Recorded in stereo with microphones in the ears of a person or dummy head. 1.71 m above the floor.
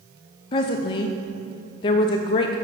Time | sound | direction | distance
0.5 | a woman speaking | 30° left (ahead or behind) | 0.5 m